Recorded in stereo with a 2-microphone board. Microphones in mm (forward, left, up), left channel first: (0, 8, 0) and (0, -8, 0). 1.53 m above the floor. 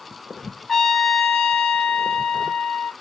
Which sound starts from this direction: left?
A trumpet, at 0.7 s.